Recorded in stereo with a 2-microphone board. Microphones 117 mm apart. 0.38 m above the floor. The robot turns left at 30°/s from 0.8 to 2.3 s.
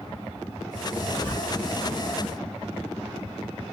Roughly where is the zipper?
Centre.